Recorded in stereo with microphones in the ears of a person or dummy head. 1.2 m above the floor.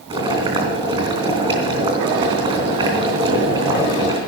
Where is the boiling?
30° right (ahead or behind), 3.5 m.